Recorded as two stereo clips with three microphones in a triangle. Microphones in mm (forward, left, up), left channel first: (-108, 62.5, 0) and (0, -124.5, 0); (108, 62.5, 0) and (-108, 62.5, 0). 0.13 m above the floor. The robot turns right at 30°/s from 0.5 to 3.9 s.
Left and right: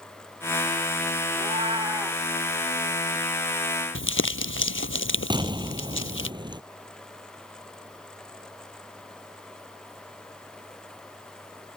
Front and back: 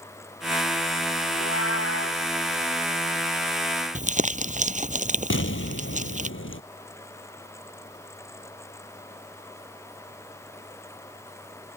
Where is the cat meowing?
5° right; by 2.2 s 25° left.